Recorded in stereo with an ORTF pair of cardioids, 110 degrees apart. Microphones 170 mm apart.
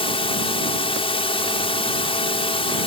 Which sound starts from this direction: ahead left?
A drone, at 0.0 s.